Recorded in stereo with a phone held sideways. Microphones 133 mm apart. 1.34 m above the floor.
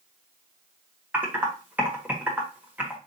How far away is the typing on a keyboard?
About 1.2 m.